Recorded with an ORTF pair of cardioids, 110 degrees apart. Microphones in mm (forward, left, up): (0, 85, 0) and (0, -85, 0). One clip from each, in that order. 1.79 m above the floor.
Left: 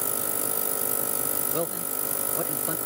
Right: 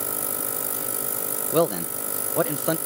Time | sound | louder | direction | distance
1.5 | a man speaking | right 12 dB | 50° right | ?